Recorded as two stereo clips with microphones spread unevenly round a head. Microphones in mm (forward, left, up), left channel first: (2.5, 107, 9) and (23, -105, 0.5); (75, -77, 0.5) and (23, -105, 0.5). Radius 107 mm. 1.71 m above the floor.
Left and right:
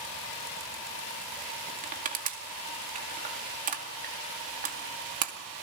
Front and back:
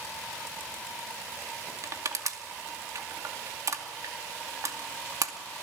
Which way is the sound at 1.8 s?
140° right.